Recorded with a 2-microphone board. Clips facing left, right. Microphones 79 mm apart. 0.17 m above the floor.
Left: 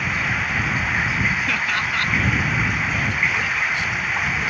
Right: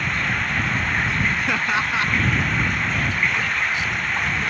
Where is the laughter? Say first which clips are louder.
Right 1 dB; 20° right (ahead or behind).